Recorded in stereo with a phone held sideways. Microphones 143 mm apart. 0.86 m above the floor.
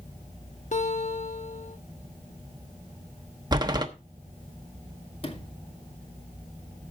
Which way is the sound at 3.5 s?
30° right (ahead or behind).